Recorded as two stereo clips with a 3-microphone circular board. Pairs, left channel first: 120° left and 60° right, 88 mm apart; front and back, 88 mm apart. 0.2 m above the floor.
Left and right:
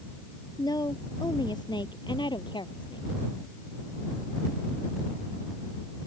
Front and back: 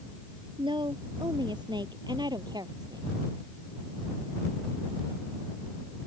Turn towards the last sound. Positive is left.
turn(degrees=140)